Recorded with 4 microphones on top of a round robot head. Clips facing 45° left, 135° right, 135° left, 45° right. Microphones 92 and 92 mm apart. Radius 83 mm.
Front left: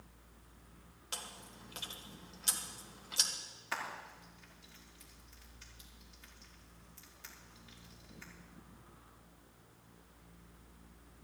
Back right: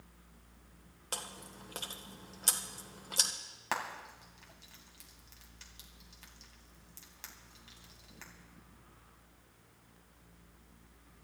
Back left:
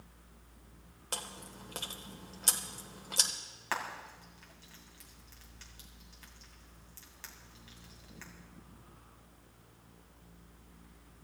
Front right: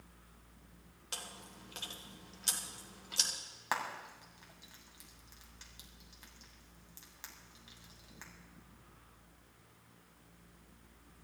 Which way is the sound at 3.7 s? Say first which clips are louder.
Back right 4 dB, even; 120° right.